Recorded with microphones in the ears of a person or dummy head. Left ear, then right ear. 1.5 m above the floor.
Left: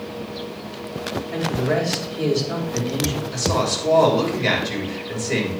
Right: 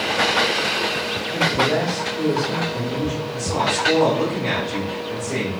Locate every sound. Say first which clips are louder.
1.3 s a man speaking: right 4 dB; 70° left (ahead or behind), 4 m
3.3 s a woman speaking: right 1 dB; 75° left (ahead or behind), 4 m